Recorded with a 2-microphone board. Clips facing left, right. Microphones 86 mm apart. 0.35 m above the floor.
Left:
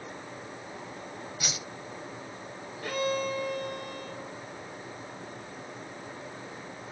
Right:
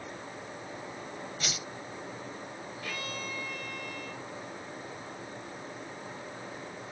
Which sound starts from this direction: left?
A violin, at 2.8 s.